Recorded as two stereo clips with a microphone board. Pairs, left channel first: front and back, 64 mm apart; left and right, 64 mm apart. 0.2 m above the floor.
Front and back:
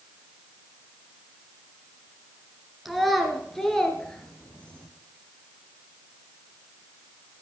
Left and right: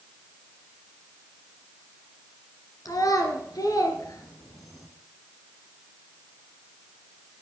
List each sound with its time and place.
2.9 s a child speaking: 90° left, 2.5 m; by 4.9 s 70° left, 3.5 m